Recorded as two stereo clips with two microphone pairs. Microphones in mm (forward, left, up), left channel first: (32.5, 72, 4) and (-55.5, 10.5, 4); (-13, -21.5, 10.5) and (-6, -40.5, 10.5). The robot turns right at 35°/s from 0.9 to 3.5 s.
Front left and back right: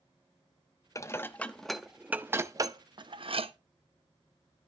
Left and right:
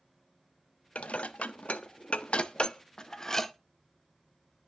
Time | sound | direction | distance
0.9 | dishes clattering | 95° left | 0.6 m